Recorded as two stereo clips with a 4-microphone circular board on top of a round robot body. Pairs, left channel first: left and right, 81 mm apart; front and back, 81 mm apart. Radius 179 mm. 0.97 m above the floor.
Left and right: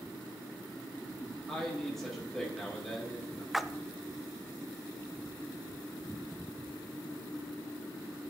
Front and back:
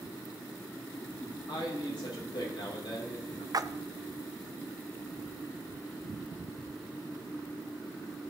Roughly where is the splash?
Behind.